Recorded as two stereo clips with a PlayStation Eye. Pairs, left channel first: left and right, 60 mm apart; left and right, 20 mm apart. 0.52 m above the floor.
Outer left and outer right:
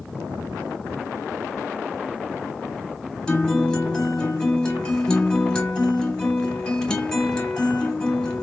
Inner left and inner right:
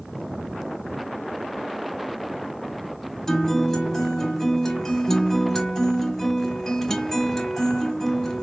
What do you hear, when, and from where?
3.3 s a guitar: 10° left (ahead or behind), 1.0 m